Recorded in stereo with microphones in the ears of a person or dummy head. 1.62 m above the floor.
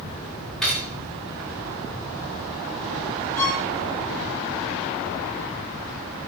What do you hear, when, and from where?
0.6 s cutlery clinking: centre (ahead or behind), 2.5 m
3.4 s a violin: 15° left (ahead or behind), 2.5 m